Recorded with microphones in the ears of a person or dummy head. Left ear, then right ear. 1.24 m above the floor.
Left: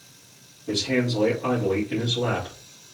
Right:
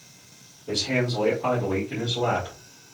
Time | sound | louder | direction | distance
0.7 | a man speaking | left 1 dB | centre (ahead or behind) | 1.6 m